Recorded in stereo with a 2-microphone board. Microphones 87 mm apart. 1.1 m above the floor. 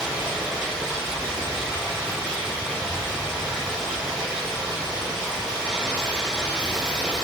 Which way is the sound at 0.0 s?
10° right (ahead or behind).